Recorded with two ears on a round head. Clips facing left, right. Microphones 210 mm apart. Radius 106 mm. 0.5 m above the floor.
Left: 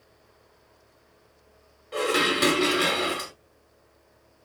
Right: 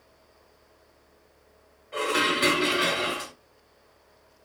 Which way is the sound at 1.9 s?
50° left (ahead or behind).